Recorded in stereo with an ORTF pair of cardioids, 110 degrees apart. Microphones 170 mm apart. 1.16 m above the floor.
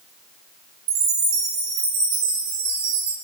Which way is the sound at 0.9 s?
65° right.